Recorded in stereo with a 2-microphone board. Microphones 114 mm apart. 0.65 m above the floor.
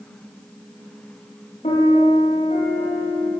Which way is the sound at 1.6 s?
80° left.